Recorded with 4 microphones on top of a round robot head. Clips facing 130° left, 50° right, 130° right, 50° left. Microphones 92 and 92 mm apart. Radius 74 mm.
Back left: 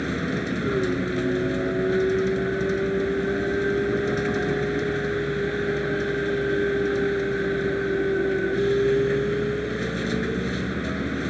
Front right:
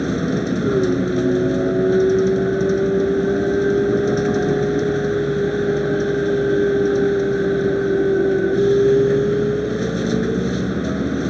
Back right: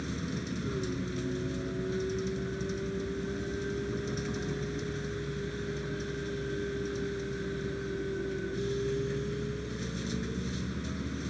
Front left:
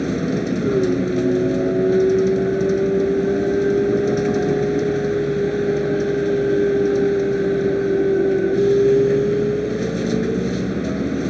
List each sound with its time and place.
0.0 s a vehicle: 15° left